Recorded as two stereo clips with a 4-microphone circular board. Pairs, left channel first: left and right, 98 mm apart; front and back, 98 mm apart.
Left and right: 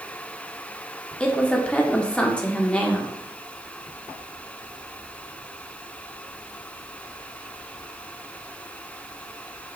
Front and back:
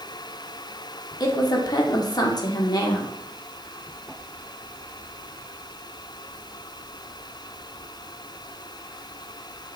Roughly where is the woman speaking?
Ahead.